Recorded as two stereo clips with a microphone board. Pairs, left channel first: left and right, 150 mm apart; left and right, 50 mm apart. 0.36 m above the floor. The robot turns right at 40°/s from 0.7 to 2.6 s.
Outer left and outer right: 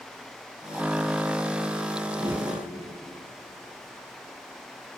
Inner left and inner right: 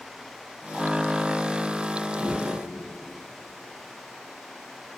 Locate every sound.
2.1 s a whoosh: 30° right (ahead or behind), 0.7 m; by 2.6 s 15° right (ahead or behind), 0.7 m